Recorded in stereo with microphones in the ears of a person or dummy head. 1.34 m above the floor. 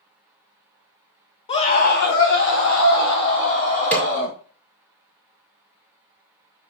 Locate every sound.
1.5 s a scream: 35° left (ahead or behind), 1.2 m; by 4.3 s 85° left, 3.5 m
3.9 s a snare drum: 5° left (ahead or behind), 3 m